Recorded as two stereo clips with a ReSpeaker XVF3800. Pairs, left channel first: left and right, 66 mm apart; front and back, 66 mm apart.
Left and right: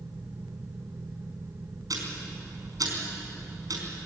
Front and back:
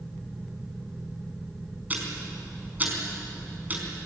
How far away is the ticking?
About 4.5 m.